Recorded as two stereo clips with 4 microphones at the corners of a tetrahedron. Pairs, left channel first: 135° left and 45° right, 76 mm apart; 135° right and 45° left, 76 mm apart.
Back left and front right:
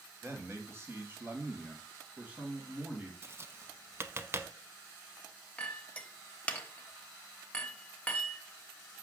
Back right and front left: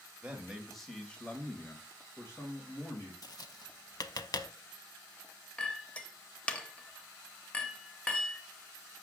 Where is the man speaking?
20° right, 1.2 m; by 3.1 s 115° right, 1.7 m.